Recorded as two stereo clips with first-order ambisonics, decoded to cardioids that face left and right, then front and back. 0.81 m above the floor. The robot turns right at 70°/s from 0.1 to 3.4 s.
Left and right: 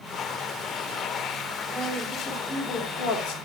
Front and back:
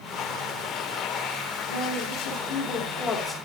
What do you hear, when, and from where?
1.7 s a woman speaking: 30° right, 3 m; by 3.4 s 90° left, 3 m